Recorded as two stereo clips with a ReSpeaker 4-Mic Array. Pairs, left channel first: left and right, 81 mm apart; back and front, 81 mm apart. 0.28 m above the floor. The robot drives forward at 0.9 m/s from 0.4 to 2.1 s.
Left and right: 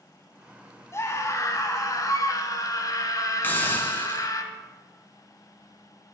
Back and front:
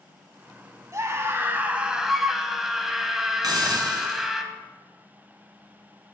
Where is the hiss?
25° left, 1.5 m.